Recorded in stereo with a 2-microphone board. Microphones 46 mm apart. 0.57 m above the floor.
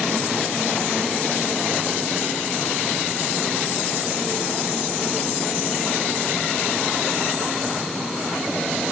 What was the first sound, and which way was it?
Only background noise.